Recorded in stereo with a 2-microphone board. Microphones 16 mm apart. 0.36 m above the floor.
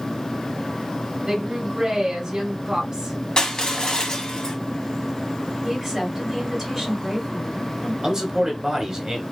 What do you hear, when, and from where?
1.3 s a woman speaking: 40° right (ahead or behind), 1.2 m
3.4 s crushing: 45° left (ahead or behind), 0.8 m
5.6 s a woman speaking: 5° right (ahead or behind), 2 m
8.0 s a man speaking: 30° right (ahead or behind), 1.0 m